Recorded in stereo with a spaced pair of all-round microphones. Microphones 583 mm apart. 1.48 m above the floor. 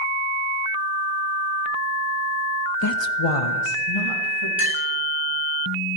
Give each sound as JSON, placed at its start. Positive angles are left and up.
{"t": 2.8, "sound": "a woman speaking", "side_deg": 25, "distance_m": 0.6}
{"t": 4.6, "sound": "a clink", "side_deg": 20, "distance_m": 2.5}